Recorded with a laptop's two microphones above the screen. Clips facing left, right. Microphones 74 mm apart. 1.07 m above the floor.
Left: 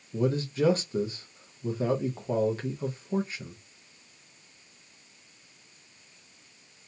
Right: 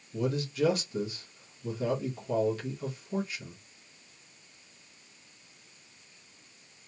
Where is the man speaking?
35° left (ahead or behind), 0.6 m.